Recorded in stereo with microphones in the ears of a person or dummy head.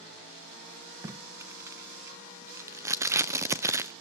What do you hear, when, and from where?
1.0 s tape being pulled: 10° right (ahead or behind), 0.5 m